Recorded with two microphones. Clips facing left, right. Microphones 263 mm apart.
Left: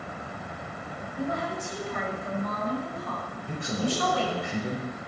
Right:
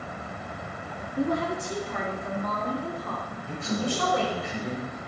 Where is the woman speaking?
85° right, 1.8 m; by 4.4 s 65° right (ahead or behind), 4.5 m.